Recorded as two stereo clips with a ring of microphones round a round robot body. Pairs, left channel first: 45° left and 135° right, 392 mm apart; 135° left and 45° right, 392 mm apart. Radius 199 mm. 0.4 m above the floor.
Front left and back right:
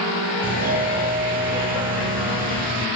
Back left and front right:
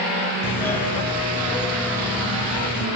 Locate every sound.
0.4 s a doorbell: 150° right, 1.2 m